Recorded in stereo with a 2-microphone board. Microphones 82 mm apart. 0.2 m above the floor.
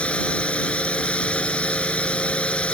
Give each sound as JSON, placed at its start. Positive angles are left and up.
{"t": 0.0, "sound": "a drone", "side_deg": 10}